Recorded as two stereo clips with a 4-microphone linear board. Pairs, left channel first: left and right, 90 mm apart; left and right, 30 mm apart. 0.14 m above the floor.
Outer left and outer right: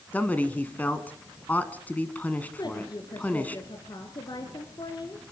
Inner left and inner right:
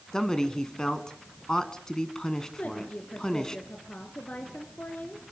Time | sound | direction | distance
0.1 | a man speaking | 20° left (ahead or behind) | 1.4 m
2.6 | a woman speaking | 55° left (ahead or behind) | 2 m